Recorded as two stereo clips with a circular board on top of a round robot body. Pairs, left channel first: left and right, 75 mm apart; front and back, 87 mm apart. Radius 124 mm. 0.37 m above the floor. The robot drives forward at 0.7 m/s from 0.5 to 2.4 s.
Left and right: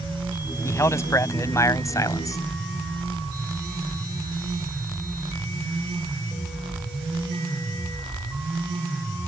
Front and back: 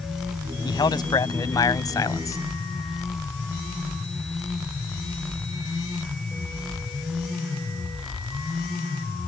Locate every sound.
0.7 s a man speaking: 35° left; by 2.4 s 50° left